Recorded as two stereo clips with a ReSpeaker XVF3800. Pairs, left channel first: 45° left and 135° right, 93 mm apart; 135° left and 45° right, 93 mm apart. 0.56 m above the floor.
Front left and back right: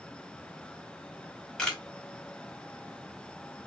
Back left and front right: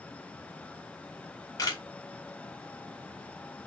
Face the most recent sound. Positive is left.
turn(degrees=125)